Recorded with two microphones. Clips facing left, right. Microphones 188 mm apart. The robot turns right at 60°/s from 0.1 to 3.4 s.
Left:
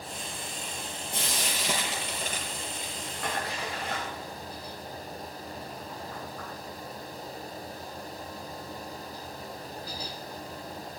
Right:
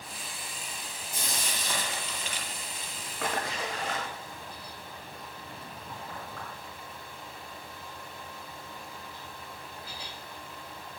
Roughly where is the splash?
Right.